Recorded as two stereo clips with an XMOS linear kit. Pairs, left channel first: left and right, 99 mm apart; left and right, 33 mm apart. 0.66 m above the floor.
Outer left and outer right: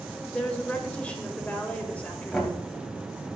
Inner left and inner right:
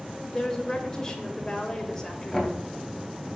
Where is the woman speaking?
15° left (ahead or behind), 2.5 m.